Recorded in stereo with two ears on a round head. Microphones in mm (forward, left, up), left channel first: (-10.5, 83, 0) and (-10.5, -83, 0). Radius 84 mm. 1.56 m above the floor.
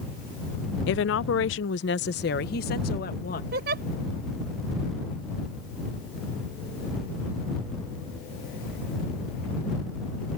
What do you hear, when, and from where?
0.9 s a woman speaking: 65° left (ahead or behind); by 3.4 s 45° left (ahead or behind)
3.5 s a giggle: 55° right (ahead or behind)